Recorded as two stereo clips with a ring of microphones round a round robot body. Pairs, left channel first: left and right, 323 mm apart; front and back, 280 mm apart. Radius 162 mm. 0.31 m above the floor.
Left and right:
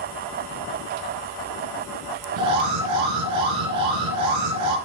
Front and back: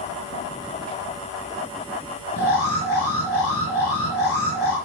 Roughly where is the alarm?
Ahead right.